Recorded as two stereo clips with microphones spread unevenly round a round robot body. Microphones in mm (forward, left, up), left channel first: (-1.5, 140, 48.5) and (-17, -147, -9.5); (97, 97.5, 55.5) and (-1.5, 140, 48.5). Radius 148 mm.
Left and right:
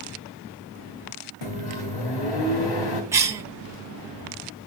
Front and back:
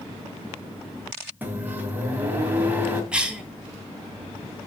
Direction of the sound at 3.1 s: 135° right.